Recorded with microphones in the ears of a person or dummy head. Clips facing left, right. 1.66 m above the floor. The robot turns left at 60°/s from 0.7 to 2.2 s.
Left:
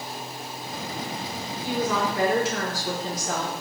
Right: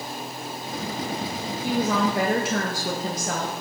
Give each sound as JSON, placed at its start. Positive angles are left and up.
{"t": 1.6, "sound": "a woman speaking", "azimuth_deg": -15, "distance_m": 0.6}